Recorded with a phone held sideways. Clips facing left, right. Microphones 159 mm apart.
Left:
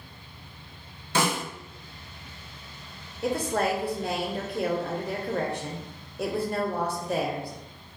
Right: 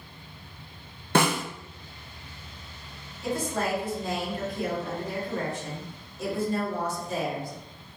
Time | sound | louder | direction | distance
1.1 | a snare drum | right 3 dB | 60° right (ahead or behind) | 0.5 m
3.2 | a woman speaking | left 3 dB | 65° left (ahead or behind) | 0.6 m